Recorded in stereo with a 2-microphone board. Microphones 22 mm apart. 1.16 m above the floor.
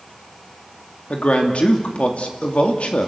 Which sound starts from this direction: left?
A man speaking, at 1.1 s.